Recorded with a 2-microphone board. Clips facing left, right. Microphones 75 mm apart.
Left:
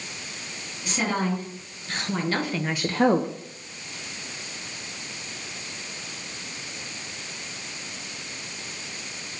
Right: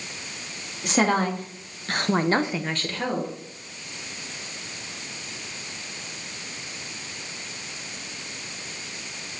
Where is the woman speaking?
75° right (ahead or behind), 2.5 m; by 3.3 s 50° left (ahead or behind), 1.0 m.